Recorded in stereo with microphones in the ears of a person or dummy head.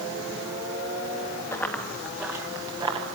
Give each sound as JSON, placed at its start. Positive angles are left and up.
{"t": 1.5, "sound": "running footsteps", "side_deg": 10, "distance_m": 1.9}